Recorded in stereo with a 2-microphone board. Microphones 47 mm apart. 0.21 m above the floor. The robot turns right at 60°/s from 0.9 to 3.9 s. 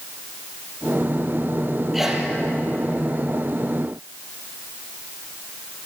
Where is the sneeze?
5° right (ahead or behind), 4.5 m; by 2.3 s 25° right (ahead or behind), 4.5 m.